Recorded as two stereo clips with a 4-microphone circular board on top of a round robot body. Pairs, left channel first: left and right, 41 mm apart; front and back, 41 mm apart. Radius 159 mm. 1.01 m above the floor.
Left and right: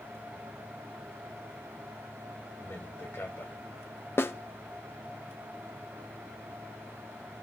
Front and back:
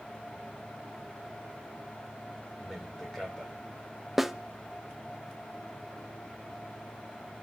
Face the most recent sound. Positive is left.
turn(degrees=95)